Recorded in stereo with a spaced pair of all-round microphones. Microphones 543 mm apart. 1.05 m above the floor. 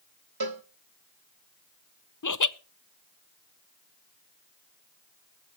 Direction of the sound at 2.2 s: 35° left (ahead or behind).